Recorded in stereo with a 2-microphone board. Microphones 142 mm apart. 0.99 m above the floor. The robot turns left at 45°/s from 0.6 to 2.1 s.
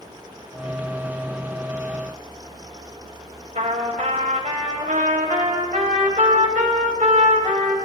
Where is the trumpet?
65° right (ahead or behind), 2 m.